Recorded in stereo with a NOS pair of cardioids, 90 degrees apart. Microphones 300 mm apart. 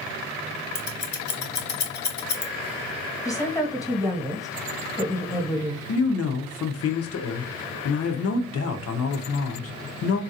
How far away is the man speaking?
About 0.9 m.